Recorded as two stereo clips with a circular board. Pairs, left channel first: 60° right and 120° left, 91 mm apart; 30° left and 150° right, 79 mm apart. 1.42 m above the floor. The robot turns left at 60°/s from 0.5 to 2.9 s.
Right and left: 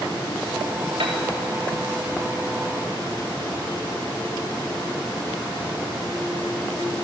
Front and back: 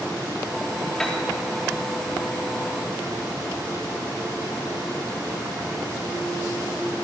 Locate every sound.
1.0 s a piano: 110° left, 3.5 m; by 1.2 s 100° left, 3.5 m